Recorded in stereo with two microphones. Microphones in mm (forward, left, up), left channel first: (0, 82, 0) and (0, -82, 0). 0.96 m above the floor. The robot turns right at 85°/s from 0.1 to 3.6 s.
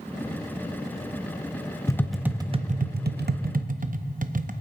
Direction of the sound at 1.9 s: 20° left (ahead or behind).